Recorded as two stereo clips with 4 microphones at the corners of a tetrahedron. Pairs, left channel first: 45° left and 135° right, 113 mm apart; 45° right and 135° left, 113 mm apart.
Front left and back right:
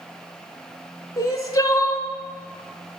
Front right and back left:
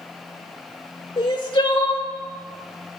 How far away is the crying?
About 0.6 m.